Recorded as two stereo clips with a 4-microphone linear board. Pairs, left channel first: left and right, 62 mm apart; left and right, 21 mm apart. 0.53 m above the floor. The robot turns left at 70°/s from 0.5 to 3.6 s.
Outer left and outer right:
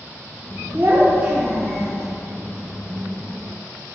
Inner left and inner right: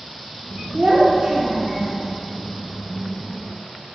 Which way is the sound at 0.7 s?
115° right.